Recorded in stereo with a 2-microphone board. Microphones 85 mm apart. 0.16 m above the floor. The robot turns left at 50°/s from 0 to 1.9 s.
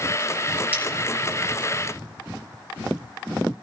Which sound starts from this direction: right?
Cutlery clinking, at 0.7 s.